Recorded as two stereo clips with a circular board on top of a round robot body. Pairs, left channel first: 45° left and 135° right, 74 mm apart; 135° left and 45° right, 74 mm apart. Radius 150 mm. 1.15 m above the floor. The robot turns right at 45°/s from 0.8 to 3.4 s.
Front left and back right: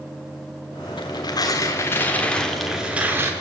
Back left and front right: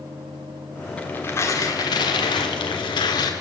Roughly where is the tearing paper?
Ahead left.